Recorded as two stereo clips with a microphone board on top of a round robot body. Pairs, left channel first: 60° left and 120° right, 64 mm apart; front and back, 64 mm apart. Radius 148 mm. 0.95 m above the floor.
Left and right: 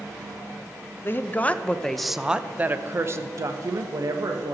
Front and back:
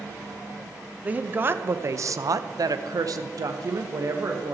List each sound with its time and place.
1.0 s a woman speaking: 115° left, 0.9 m; by 4.5 s 140° right, 1.4 m